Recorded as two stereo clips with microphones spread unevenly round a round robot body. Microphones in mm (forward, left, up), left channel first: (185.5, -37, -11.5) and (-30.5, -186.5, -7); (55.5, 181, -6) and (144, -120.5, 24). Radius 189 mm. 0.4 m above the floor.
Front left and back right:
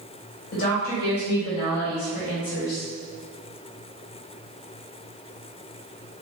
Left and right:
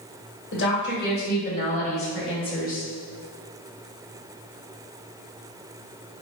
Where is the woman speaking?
75° left, 1.8 m; by 2.9 s 30° left, 3 m.